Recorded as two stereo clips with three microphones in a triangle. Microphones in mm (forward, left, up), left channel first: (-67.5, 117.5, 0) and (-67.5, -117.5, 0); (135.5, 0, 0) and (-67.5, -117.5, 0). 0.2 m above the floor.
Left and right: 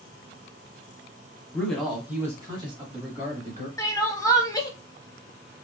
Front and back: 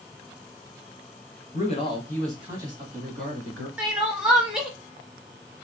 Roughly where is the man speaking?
Ahead.